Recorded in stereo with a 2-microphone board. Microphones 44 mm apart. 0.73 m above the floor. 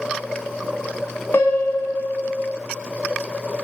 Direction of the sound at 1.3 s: 55° left (ahead or behind).